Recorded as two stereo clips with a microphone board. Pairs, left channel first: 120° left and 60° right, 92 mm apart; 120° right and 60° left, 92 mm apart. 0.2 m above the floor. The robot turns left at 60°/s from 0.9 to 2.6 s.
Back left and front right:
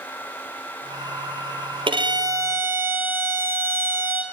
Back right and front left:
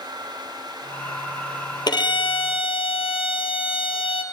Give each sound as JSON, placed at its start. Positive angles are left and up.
{"t": 1.9, "sound": "a violin", "azimuth_deg": -80, "distance_m": 1.6}